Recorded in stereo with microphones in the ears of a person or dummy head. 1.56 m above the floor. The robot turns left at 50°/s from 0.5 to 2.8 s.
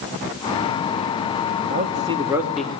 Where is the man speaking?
130° right, 2.5 m; by 2.7 s 175° left, 2.5 m.